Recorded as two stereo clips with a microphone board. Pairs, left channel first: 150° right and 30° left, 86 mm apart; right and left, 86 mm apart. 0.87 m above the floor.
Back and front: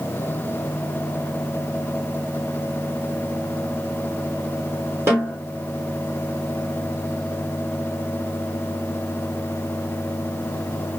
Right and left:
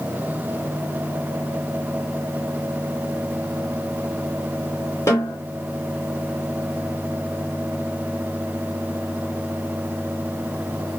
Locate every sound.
5.1 s a snare drum: 30° right, 3 m